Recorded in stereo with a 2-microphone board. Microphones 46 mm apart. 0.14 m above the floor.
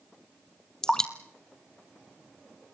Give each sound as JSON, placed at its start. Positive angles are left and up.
{"t": 0.8, "sound": "dripping", "side_deg": 10, "distance_m": 1.3}